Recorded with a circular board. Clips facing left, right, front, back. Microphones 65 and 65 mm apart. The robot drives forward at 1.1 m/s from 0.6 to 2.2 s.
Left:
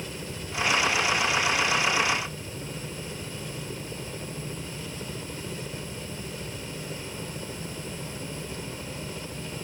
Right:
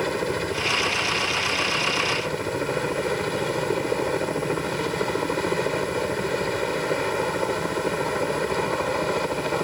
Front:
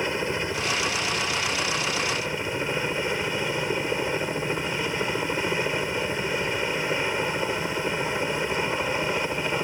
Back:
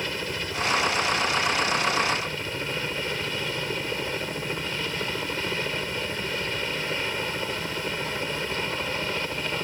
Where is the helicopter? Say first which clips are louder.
Right 13 dB, front 4 dB; 70° right; by 9.6 s 75° right.